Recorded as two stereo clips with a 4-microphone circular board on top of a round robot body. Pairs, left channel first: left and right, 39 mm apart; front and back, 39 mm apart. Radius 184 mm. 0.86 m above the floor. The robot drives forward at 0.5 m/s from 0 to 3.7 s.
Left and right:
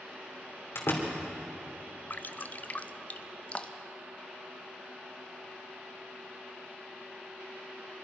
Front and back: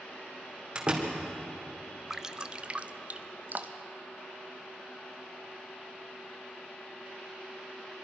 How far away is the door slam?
About 3 m.